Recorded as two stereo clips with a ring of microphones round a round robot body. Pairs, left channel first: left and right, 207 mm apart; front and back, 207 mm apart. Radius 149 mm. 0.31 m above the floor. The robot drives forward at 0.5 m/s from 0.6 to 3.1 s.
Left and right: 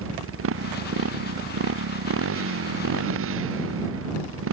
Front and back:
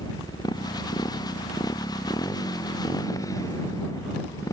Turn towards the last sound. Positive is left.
turn(degrees=-80)